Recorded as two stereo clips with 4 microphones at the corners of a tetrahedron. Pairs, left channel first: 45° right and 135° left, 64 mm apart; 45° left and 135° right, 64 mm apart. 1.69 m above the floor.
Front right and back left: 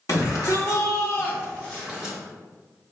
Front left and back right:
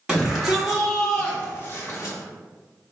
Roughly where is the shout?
Ahead right.